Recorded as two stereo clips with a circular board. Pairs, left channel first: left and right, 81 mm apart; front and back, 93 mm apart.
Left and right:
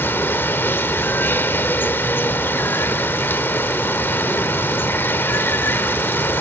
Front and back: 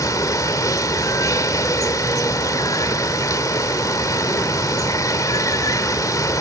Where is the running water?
35° left, 1.3 m.